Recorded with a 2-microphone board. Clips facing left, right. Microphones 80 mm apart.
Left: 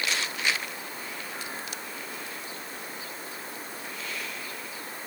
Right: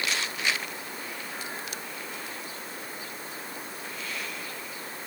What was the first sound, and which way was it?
Only background noise.